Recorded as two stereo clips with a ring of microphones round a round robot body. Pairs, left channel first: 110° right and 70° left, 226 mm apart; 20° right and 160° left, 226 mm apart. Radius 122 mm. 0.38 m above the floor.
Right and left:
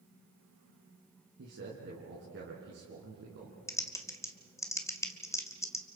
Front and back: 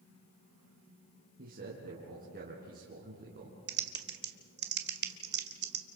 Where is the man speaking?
105° left, 4 m.